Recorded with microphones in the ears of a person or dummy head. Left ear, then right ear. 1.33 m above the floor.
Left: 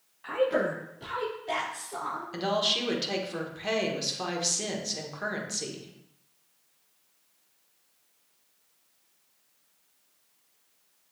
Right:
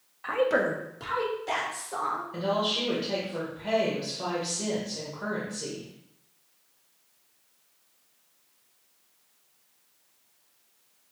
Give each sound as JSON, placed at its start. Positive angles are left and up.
{"t": 0.2, "sound": "a woman speaking", "side_deg": -20, "distance_m": 0.9}
{"t": 2.3, "sound": "a woman speaking", "side_deg": 60, "distance_m": 1.2}